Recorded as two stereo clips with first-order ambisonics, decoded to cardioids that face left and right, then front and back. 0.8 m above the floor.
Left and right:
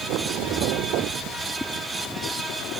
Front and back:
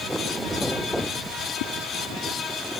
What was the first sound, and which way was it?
A whoosh, 10° left.